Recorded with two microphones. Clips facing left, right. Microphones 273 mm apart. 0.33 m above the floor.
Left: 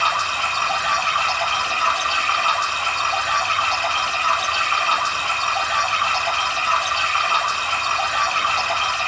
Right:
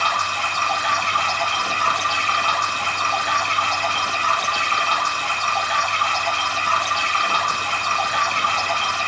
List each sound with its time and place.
0.0 s running water: 10° left (ahead or behind), 6 m